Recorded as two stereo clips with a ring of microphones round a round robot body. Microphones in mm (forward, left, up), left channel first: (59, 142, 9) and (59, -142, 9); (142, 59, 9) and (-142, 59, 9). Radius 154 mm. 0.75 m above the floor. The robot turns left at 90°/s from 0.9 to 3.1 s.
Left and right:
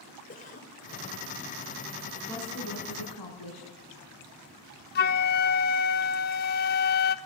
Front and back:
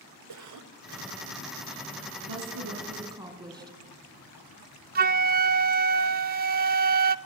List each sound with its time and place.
0.3 s a cough: 155° left, 2.5 m; by 1.2 s 130° left, 2.5 m
2.3 s a woman speaking: 175° left, 7 m; by 3.8 s 100° left, 7 m
5.0 s a flute: 135° left, 0.5 m